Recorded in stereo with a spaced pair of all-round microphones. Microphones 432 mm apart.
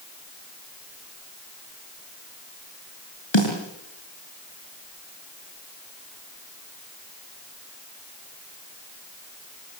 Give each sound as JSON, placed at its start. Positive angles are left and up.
{"t": 3.3, "sound": "a snare drum", "side_deg": 75, "distance_m": 6.0}